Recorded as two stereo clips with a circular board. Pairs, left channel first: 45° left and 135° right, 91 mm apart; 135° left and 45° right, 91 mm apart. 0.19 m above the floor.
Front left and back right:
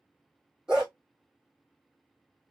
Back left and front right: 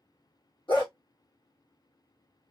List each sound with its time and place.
0.7 s a dog barking: 140° left, 2 m